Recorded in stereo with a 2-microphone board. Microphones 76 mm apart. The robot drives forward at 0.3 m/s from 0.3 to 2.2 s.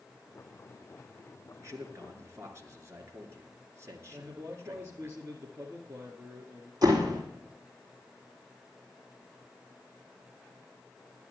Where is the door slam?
50° right (ahead or behind), 4.5 m.